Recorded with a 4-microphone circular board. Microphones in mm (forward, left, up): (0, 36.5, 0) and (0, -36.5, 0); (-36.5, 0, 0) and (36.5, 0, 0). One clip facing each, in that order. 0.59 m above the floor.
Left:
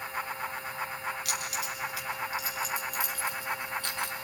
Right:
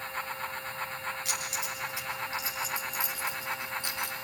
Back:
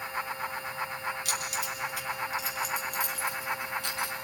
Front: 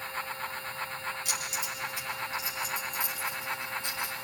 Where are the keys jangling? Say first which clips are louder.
Left 1 dB, back 2 dB; 150° right, 6 m; by 4.1 s 165° right, 5 m.